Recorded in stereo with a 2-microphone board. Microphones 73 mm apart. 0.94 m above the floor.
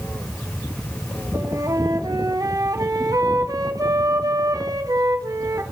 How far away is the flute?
About 0.6 m.